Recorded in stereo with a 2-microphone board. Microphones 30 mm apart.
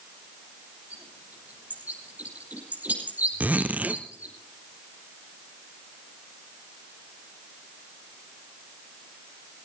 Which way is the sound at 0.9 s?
70° right (ahead or behind).